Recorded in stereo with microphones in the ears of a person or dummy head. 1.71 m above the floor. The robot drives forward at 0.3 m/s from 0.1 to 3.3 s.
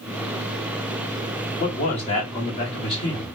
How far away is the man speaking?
About 1.3 m.